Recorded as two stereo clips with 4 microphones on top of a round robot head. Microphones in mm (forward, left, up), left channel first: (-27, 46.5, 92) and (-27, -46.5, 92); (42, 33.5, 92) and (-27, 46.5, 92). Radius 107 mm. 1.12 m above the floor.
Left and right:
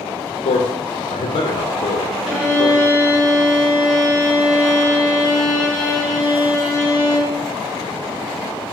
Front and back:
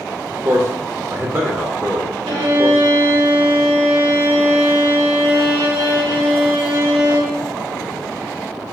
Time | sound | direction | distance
0.5 | a man speaking | 105° left | 0.6 m
2.3 | a violin | 170° right | 0.7 m